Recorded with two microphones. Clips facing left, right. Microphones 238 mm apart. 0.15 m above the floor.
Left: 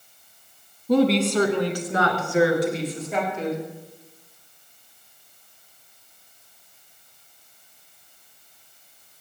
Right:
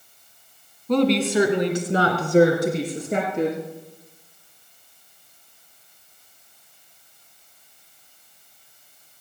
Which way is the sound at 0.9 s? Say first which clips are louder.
Even; 10° left (ahead or behind).